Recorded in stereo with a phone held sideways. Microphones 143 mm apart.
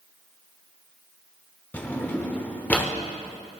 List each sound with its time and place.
1.7 s a drawer: 15° left (ahead or behind), 0.7 m